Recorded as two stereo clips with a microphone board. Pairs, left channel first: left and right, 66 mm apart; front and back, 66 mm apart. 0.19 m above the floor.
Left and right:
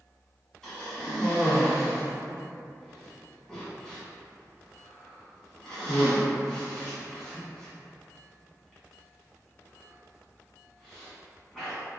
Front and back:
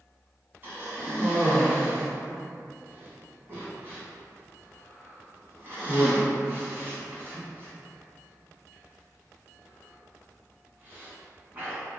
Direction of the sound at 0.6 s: 160° left.